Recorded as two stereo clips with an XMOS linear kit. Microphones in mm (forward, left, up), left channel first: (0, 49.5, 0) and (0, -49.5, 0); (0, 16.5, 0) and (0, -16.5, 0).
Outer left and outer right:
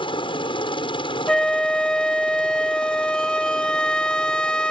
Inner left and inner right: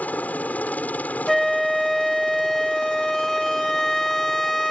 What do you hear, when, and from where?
0.0 s a helicopter: 60° left (ahead or behind)
1.3 s a flute: 5° left (ahead or behind)